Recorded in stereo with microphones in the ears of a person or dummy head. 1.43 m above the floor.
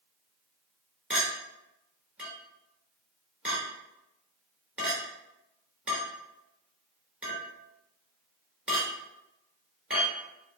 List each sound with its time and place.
1.1 s a clink: 5° right (ahead or behind), 3 m